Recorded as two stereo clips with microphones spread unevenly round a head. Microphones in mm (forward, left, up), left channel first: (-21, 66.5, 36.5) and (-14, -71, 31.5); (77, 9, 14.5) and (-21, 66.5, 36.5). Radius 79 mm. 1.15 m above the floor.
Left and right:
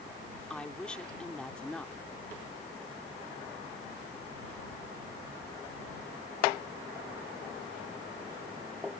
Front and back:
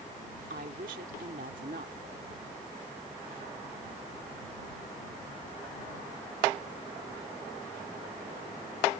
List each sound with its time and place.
0.5 s a woman speaking: 175° left